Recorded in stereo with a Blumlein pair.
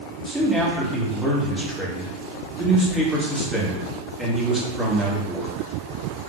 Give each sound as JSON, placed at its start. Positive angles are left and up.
{"t": 0.2, "sound": "a man speaking", "azimuth_deg": 0, "distance_m": 1.5}